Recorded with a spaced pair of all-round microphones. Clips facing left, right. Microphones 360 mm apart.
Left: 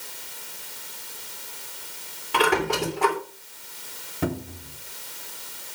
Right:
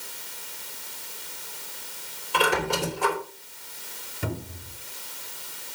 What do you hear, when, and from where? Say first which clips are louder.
2.3 s a squeak: left 3 dB; 70° left (ahead or behind), 2.5 m
4.2 s a cupboard door: left 6 dB; 75° left (ahead or behind), 3.5 m